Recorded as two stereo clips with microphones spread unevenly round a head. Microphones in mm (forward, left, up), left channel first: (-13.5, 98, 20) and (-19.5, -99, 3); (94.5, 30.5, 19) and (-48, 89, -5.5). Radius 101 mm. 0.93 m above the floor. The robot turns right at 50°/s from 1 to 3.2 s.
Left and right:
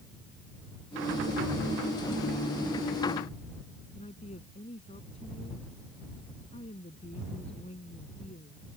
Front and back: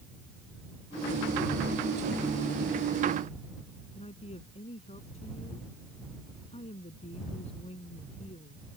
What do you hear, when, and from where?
4.0 s a woman speaking: 25° left